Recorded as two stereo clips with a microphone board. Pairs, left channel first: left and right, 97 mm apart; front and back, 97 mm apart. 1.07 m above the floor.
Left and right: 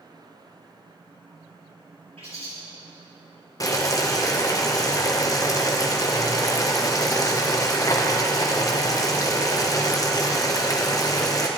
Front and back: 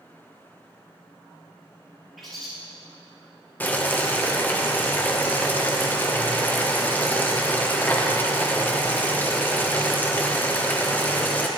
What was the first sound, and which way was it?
A bird, 90° right.